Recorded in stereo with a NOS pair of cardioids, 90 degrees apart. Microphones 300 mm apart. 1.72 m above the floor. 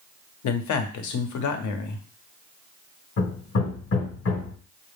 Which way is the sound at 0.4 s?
65° left.